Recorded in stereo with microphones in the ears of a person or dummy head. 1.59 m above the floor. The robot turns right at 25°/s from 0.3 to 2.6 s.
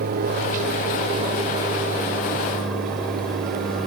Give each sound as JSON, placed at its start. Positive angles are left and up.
{"t": 0.0, "sound": "an aircraft", "side_deg": -50}